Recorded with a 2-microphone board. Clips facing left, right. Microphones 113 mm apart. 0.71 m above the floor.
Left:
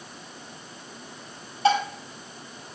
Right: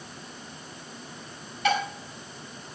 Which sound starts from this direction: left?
Dishes clattering, at 1.6 s.